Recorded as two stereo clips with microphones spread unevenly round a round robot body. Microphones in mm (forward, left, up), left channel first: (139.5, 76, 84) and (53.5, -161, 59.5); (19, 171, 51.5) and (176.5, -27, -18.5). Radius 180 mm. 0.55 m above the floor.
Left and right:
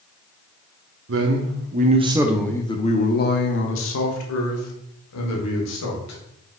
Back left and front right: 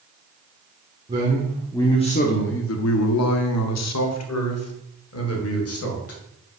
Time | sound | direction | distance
1.1 | a man speaking | 115° right | 1.0 m